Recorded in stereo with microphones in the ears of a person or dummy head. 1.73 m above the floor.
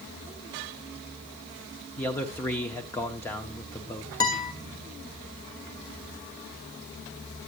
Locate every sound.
2.0 s a man speaking: 10° left (ahead or behind), 0.7 m
4.2 s a guitar: 20° left (ahead or behind), 1.6 m